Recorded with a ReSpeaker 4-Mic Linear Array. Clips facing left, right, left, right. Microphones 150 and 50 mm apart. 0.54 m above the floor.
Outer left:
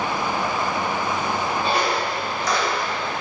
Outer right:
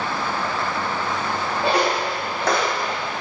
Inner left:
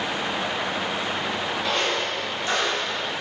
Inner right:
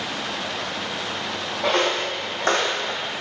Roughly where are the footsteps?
Right.